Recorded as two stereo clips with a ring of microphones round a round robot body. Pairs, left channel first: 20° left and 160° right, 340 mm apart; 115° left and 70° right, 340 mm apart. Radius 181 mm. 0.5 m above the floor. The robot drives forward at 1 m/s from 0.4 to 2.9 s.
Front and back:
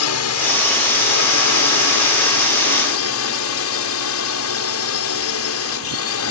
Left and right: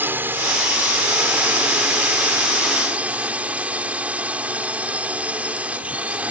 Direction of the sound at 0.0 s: 15° left.